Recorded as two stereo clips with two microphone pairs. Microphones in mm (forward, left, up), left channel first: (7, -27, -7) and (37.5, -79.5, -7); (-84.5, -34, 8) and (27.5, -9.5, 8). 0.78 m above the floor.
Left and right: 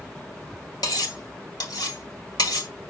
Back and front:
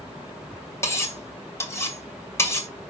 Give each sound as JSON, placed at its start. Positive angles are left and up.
{"t": 0.8, "sound": "cutlery clinking", "azimuth_deg": 125, "distance_m": 1.9}